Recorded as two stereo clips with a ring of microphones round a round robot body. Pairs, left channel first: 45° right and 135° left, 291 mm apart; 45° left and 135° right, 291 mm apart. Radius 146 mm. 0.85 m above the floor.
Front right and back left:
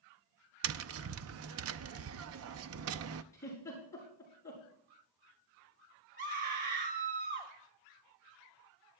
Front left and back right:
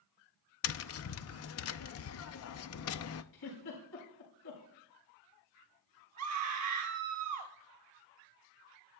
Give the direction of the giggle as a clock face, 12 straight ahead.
11 o'clock.